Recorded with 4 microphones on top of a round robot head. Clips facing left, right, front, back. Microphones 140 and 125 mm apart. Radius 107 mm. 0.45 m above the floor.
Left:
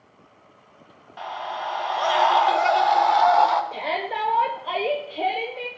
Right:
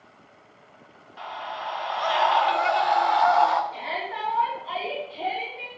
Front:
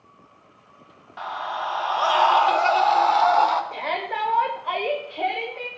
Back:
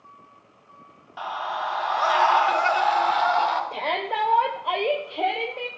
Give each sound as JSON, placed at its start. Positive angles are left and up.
{"t": 1.2, "sound": "a scream", "azimuth_deg": 100, "distance_m": 1.7}
{"t": 3.7, "sound": "a shout", "azimuth_deg": 110, "distance_m": 1.6}